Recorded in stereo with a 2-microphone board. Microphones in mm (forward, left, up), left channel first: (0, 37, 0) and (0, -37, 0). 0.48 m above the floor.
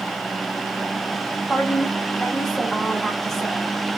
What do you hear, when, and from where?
1.5 s a woman speaking: 5° left (ahead or behind), 1.1 m